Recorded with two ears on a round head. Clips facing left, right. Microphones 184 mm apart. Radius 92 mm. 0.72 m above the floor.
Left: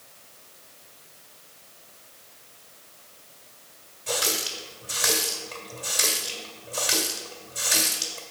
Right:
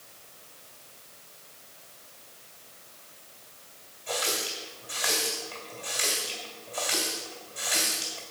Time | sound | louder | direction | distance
4.1 | a running tap | left 2 dB | 50° left (ahead or behind) | 2.0 m